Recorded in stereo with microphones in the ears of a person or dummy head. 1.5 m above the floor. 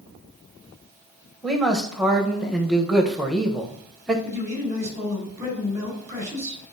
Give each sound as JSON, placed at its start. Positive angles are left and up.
{"t": 1.4, "sound": "a man speaking", "side_deg": 0, "distance_m": 1.1}
{"t": 4.2, "sound": "a man speaking", "side_deg": -15, "distance_m": 4.0}